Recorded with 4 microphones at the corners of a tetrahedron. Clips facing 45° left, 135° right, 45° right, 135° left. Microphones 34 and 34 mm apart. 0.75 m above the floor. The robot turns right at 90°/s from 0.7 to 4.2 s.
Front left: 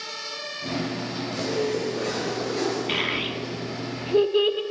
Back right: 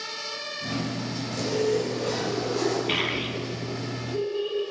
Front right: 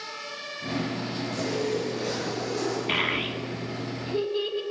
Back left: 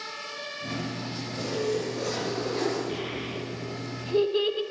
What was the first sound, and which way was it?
A zipper, 35° right.